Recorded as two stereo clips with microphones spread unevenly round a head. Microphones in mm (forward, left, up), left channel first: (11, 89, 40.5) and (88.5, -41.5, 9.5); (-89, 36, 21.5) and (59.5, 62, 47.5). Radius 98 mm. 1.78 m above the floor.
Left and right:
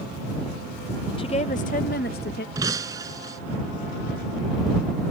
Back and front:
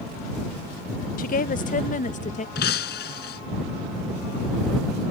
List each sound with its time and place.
1.2 s a woman speaking: 165° left; by 2.5 s 150° left
2.5 s breaking glass: 135° right